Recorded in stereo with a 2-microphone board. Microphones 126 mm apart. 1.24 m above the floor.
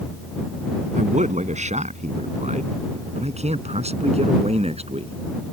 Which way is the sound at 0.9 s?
75° right (ahead or behind).